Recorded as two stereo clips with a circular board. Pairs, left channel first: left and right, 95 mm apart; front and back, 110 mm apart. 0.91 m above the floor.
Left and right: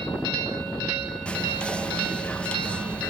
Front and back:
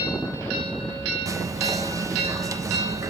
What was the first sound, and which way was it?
Whispering, 160° left.